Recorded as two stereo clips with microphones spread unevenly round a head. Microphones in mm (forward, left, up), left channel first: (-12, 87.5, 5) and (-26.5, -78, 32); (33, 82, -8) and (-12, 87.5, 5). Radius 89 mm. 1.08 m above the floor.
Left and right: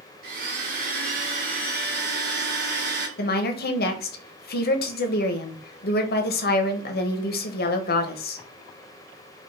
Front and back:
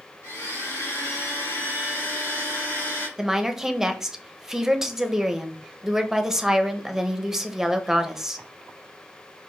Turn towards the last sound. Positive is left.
turn(degrees=85)